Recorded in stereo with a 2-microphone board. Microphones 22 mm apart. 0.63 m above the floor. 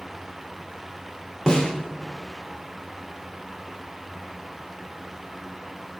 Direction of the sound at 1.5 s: 35° left (ahead or behind).